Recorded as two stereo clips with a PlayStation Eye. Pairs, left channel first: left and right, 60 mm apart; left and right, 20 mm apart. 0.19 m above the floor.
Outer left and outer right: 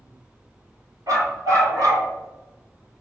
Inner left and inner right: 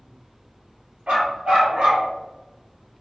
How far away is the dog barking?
About 1.8 m.